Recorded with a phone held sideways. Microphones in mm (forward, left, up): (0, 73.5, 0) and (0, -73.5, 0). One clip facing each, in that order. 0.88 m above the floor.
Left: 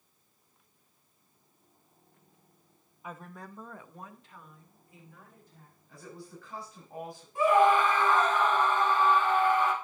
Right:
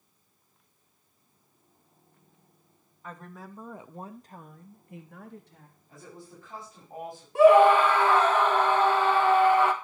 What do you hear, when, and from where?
3.0 s a woman speaking: 10° left (ahead or behind), 1.0 m; by 5.8 s 75° right (ahead or behind), 1.5 m
5.9 s a woman speaking: 25° right (ahead or behind), 5 m
7.3 s a scream: 75° right (ahead or behind), 1.5 m